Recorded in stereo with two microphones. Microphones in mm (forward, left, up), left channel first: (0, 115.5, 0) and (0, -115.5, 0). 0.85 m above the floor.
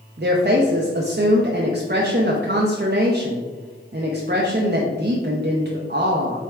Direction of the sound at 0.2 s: 45° right (ahead or behind).